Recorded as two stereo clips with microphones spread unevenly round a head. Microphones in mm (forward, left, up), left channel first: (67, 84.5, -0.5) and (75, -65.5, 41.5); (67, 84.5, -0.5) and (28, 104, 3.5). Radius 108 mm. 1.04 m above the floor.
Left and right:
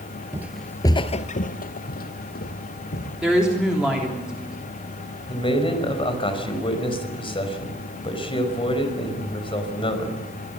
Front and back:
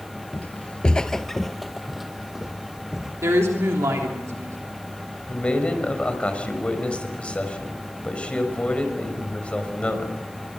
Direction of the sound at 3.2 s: 175° right.